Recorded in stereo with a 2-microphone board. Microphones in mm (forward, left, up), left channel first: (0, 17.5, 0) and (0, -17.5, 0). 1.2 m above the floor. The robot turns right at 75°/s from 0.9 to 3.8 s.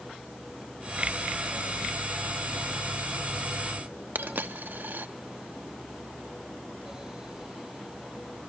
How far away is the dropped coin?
About 1.0 m.